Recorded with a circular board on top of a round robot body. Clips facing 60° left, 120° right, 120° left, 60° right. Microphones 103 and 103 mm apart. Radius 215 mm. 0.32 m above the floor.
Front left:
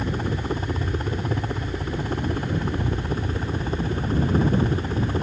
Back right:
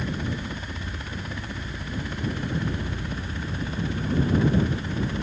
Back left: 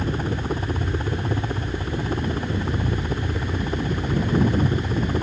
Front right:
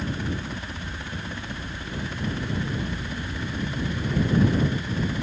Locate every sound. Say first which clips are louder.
0.0 s a helicopter: front left 4 dB, back left 4 dB; 95° left